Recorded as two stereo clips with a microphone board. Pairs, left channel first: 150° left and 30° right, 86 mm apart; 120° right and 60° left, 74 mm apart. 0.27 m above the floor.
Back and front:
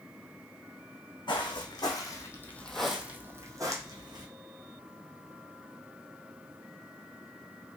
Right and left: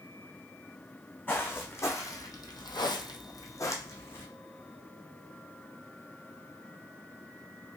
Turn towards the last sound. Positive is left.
turn(degrees=-65)